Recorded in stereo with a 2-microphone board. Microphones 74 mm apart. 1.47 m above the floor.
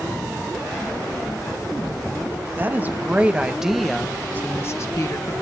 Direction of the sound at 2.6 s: 30° right (ahead or behind).